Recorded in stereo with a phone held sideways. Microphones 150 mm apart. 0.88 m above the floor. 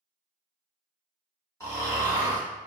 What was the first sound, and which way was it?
Snoring, 20° left (ahead or behind).